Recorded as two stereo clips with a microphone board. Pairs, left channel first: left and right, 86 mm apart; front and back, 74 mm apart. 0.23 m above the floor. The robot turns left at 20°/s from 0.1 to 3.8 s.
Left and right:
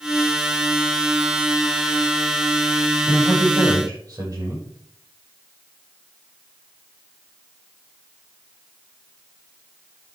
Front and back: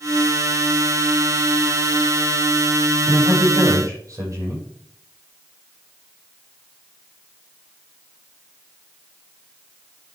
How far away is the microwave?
I don't hear a microwave.